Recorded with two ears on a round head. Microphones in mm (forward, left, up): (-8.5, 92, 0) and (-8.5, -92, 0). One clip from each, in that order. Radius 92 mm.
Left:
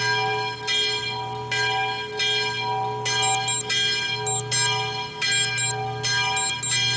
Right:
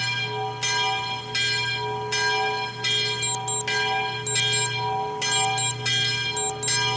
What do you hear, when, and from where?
3.2 s an alarm clock: centre (ahead or behind)